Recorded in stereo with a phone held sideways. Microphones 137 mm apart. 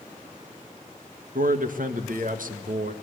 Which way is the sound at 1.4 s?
70° right (ahead or behind).